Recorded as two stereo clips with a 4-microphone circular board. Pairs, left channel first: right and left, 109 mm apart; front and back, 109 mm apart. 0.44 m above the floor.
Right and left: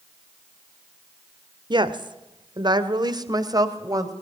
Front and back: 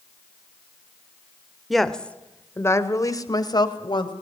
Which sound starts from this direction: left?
A woman speaking, at 1.7 s.